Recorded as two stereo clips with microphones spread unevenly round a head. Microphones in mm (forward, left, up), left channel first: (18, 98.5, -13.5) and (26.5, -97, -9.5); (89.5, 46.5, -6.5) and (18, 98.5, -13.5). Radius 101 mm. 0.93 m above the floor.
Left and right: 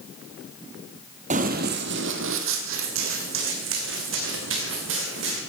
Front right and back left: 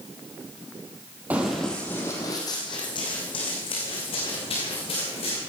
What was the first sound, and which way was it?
Running footsteps, 135° right.